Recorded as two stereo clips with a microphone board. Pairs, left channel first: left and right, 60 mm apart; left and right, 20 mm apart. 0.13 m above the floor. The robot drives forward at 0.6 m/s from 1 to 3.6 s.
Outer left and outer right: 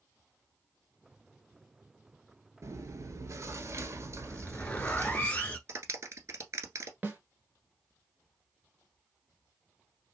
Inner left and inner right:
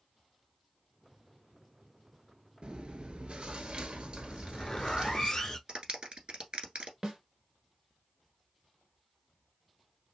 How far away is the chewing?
About 0.9 m.